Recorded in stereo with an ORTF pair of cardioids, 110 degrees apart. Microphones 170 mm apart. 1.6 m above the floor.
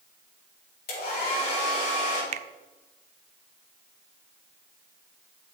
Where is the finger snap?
45° right, 0.6 m.